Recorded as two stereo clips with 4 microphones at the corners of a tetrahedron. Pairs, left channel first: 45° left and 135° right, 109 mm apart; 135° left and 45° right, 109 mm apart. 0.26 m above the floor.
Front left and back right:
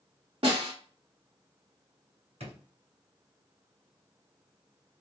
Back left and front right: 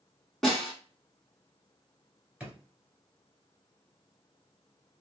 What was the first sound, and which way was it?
A snare drum, 140° right.